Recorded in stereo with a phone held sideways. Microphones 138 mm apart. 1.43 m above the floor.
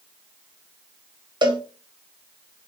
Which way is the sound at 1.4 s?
35° right (ahead or behind).